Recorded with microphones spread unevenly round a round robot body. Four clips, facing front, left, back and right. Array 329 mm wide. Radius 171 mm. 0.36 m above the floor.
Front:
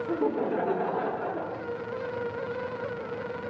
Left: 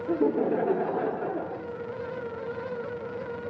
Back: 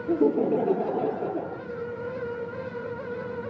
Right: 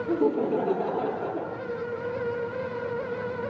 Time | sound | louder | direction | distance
0.1 | laughter | even, back 6 dB | 170° right | 1.1 m